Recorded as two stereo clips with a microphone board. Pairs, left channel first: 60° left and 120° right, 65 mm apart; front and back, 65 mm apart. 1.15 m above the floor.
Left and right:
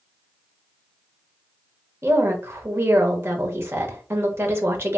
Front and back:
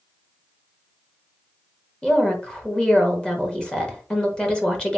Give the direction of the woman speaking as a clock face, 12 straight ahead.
2 o'clock.